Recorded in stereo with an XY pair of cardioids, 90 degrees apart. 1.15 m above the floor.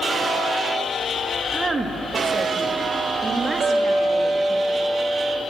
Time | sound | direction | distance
1.5 | a woman speaking | 30° right | 1.6 m
3.6 | a clink | 45° right | 4.5 m